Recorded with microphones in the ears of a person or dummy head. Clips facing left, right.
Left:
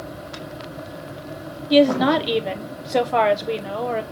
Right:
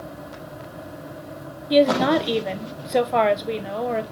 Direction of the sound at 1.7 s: Centre (ahead or behind).